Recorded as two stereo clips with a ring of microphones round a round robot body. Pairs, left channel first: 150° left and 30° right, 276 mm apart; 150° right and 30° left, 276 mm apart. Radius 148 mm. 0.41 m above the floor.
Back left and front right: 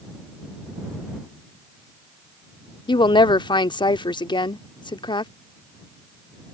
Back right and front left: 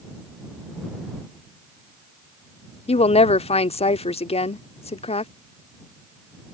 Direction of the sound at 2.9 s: 165° right.